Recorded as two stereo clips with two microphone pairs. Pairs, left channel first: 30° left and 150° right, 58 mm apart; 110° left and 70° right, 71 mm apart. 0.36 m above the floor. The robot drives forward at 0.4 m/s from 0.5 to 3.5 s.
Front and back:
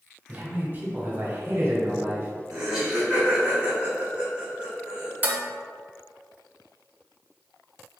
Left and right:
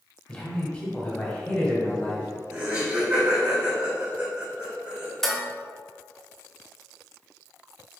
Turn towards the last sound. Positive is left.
turn(degrees=-175)